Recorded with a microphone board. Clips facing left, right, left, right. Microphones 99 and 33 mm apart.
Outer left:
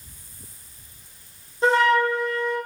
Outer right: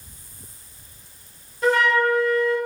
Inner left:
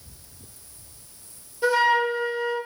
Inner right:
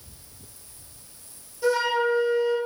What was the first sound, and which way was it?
A flute, 25° left (ahead or behind).